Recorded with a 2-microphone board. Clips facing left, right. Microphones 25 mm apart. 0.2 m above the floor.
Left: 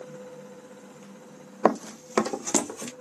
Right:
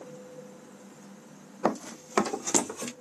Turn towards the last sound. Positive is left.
turn(degrees=5)  # may be behind; listen again after turning